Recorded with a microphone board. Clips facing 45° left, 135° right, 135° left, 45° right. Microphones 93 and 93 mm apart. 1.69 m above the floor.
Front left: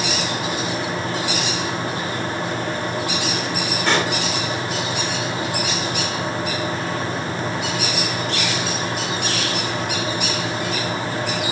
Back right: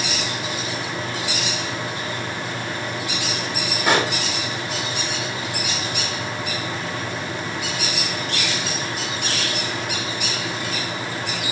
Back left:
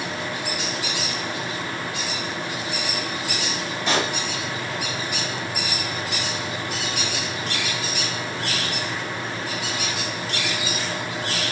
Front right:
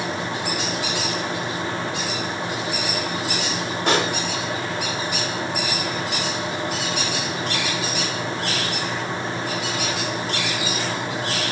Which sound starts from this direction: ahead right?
A pop, at 3.9 s.